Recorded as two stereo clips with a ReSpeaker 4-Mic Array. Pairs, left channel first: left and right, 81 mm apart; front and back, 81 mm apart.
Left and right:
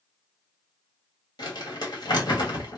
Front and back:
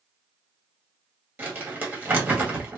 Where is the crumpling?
115° left, 2 m.